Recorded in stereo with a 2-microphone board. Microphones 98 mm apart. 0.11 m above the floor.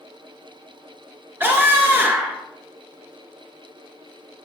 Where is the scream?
20° right (ahead or behind), 1.7 m.